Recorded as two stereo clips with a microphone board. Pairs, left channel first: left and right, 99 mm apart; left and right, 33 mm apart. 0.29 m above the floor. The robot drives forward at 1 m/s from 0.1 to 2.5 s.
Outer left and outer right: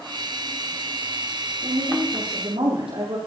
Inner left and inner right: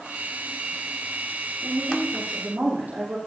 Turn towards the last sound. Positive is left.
turn(degrees=-70)  # may be behind; listen again after turning